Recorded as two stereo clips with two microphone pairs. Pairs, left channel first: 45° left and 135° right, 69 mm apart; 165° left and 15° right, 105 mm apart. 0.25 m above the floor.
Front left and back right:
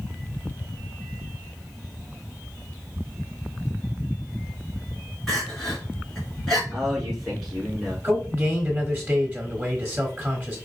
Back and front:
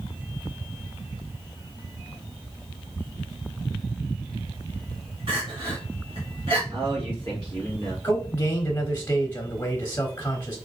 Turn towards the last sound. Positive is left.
turn(degrees=-170)